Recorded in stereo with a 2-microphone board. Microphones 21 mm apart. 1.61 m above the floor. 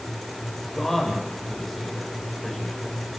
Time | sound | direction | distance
0.7 | a man speaking | 20° left (ahead or behind) | 8 m